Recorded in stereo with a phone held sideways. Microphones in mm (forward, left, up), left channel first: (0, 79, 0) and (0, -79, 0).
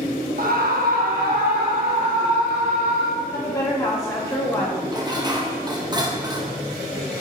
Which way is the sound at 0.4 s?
70° right (ahead or behind).